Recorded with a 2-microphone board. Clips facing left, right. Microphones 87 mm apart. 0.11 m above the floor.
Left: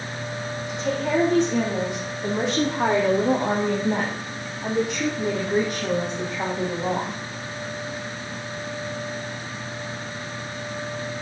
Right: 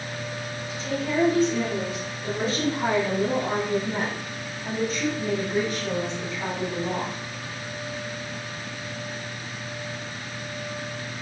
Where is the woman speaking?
75° left (ahead or behind), 5.5 m; by 7.2 s 50° left (ahead or behind), 4.5 m.